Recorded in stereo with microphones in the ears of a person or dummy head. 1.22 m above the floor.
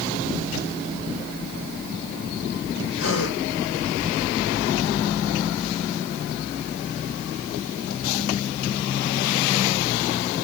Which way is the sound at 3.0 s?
80° left.